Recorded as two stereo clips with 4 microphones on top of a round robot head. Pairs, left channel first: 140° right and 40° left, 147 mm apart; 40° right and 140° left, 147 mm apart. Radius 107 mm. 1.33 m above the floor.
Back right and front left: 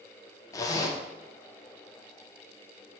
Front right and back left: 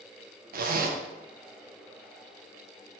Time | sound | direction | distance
0.5 | a zipper | 155° left | 0.6 m